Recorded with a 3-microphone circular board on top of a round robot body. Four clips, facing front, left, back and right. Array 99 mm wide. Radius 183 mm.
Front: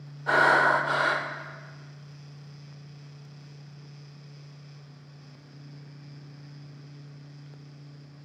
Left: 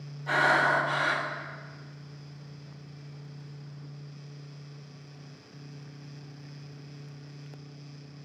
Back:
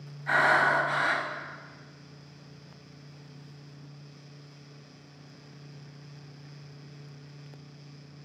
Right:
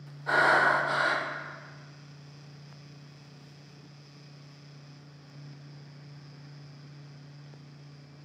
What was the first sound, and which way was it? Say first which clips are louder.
Breathing: right 1 dB, front 3 dB; 10° right.